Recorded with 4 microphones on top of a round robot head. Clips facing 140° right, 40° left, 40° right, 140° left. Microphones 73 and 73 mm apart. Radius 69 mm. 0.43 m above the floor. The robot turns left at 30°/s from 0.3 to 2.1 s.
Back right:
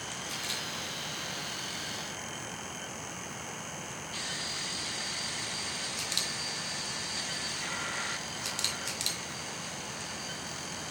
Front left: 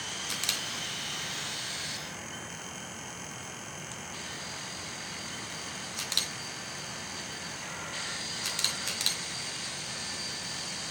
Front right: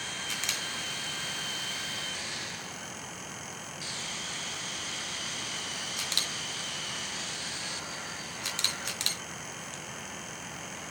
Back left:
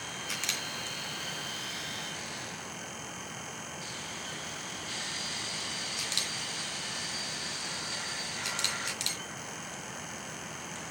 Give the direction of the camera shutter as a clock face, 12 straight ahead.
10 o'clock.